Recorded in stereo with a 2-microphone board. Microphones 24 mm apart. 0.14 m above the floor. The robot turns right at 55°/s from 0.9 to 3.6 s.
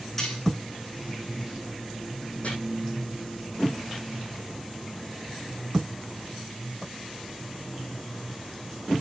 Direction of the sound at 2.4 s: 65° left (ahead or behind).